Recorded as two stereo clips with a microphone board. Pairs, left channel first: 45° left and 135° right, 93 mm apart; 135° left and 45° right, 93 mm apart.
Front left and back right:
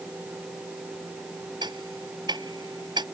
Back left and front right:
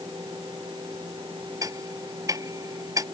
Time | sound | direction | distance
1.6 | ticking | 95° right | ?